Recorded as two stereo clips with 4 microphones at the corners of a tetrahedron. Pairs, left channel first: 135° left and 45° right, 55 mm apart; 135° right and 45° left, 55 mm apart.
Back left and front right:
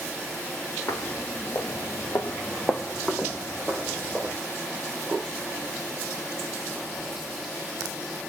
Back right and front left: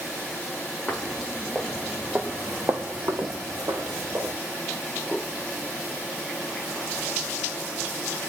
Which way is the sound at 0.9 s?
150° left.